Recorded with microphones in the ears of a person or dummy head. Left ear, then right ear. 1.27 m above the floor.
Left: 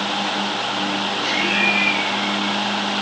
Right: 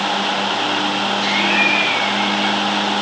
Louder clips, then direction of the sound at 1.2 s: Right 2 dB; 25° right (ahead or behind).